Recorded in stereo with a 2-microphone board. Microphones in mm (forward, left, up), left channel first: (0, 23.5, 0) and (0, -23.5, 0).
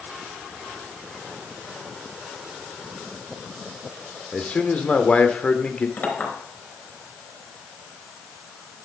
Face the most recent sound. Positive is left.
turn(degrees=40)  # may be behind; listen again after turning